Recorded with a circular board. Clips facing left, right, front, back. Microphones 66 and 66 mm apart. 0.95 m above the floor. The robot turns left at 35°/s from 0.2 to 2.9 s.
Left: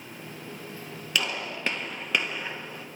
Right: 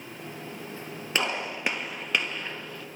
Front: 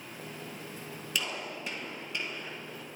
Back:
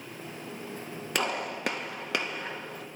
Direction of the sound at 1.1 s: 145° right.